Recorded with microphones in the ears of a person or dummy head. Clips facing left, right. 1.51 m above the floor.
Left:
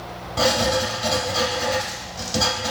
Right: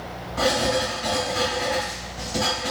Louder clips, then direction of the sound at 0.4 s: Left 1 dB; 55° left (ahead or behind).